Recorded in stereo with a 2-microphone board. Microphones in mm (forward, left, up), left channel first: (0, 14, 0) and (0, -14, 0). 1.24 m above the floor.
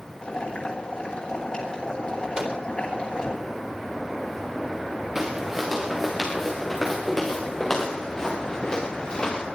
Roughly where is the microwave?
Right.